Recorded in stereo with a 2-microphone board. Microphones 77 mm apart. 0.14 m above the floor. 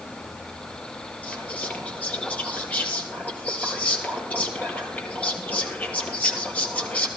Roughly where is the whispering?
Left.